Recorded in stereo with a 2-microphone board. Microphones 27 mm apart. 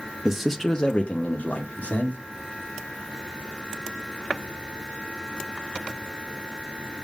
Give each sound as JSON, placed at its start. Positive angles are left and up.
{"t": 0.2, "sound": "a man speaking", "side_deg": -20, "distance_m": 0.6}